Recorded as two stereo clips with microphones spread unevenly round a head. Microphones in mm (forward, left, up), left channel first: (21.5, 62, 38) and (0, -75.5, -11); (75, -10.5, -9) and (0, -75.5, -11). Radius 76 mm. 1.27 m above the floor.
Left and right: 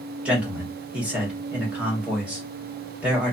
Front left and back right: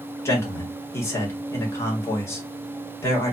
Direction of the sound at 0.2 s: 20° right.